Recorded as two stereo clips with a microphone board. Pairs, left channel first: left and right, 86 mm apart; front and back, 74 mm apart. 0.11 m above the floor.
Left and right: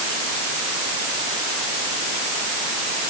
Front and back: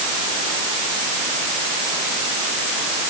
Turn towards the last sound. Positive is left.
No sound to turn to.